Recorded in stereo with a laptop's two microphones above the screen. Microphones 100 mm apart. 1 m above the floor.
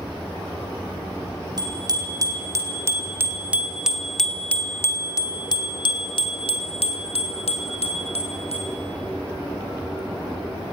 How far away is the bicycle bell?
About 3.5 m.